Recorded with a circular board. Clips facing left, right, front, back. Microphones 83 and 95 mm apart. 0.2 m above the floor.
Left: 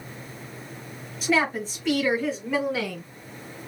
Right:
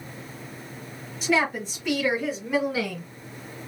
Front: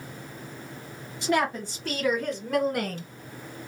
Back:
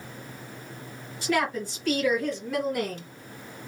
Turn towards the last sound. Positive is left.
turn(degrees=-5)